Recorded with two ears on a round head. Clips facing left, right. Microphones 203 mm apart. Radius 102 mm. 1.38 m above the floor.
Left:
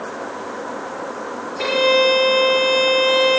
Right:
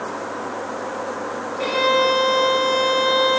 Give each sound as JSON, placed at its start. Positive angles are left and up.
{"t": 1.6, "sound": "a violin", "side_deg": 80, "distance_m": 5.0}